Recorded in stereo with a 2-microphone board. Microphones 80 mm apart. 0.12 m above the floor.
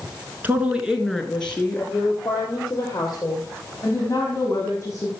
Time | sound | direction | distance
0.4 | a woman speaking | 20° right (ahead or behind) | 1.2 m